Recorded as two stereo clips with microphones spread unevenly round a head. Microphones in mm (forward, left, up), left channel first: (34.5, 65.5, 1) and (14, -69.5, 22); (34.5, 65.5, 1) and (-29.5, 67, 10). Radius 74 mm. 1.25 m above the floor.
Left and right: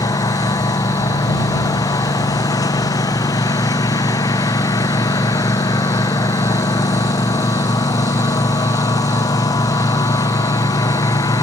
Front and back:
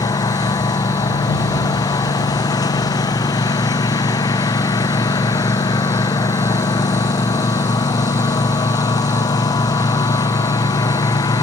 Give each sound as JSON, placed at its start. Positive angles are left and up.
{"t": 0.0, "sound": "a lawn mower", "azimuth_deg": 15}